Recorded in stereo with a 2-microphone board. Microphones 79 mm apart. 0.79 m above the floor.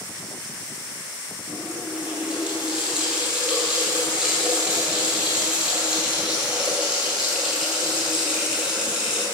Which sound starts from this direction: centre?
A running tap, at 1.5 s.